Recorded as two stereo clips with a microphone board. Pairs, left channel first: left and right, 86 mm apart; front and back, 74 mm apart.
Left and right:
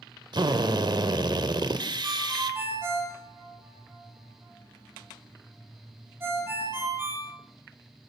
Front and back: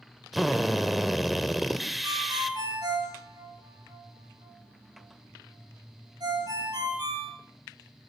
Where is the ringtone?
155° right, 8.5 m.